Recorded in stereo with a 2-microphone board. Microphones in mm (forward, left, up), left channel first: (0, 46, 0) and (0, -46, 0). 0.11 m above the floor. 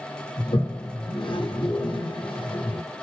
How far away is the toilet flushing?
About 3.5 m.